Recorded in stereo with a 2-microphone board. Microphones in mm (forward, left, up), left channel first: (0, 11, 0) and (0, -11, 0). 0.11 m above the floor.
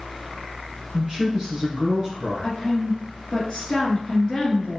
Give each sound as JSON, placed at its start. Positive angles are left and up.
{"t": 0.9, "sound": "a man speaking", "side_deg": -30, "distance_m": 1.6}
{"t": 2.4, "sound": "a woman speaking", "side_deg": 25, "distance_m": 1.4}